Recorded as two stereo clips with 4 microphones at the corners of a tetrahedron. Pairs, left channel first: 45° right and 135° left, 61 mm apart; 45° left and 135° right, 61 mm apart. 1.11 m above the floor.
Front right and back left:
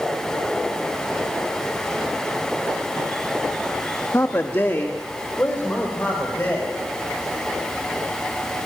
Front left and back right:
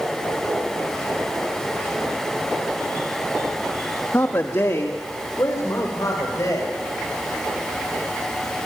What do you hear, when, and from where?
4.1 s a man speaking: straight ahead, 1.3 m; by 6.7 s 10° left, 5.5 m